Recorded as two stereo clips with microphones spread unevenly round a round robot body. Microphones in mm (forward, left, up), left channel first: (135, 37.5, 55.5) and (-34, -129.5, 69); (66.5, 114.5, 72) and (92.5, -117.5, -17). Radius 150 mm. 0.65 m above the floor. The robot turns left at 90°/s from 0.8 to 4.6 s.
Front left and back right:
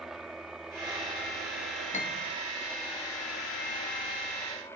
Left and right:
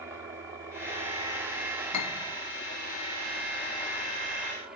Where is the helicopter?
45° right; by 4.8 s 30° right.